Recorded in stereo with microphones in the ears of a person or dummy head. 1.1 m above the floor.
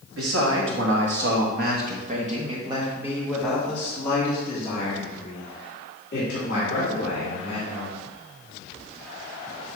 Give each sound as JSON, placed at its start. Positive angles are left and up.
{"t": 0.2, "sound": "a man speaking", "side_deg": -75, "distance_m": 1.7}